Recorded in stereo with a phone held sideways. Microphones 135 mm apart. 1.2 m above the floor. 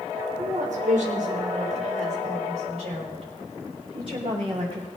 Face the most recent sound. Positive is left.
turn(degrees=-40)  # may be behind; listen again after turning